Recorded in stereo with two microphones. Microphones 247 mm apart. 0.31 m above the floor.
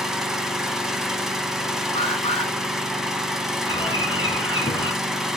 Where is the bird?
20° left (ahead or behind), 3.5 m.